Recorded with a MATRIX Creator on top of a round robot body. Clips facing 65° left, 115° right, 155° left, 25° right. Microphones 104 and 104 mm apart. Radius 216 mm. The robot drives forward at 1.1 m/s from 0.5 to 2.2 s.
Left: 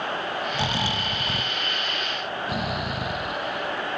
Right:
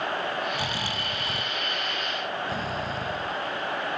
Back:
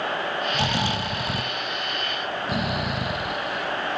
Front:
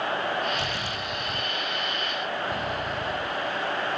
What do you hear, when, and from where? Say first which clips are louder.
0.5 s snoring: left 4 dB, back 6 dB; 135° left; by 4.0 s 140° left